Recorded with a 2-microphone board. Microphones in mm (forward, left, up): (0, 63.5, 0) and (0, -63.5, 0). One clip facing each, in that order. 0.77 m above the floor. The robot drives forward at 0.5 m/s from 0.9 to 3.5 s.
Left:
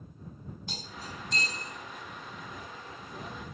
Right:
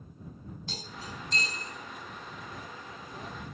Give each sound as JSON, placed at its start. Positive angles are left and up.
{"t": 0.7, "sound": "cutlery clinking", "side_deg": 15, "distance_m": 1.0}